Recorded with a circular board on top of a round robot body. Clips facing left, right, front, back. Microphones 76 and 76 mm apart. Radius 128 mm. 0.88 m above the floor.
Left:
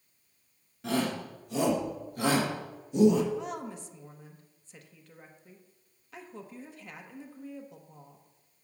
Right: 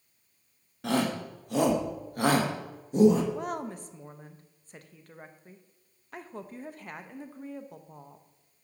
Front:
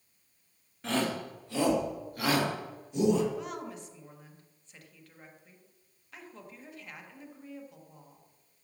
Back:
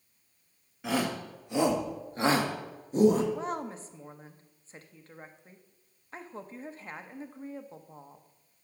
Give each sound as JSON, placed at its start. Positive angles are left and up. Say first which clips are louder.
{"t": 0.8, "sound": "a shout", "louder": "right 2 dB, even", "azimuth_deg": -100, "distance_m": 2.0}
{"t": 3.3, "sound": "a woman speaking", "louder": "right 2 dB, back 4 dB", "azimuth_deg": -125, "distance_m": 1.0}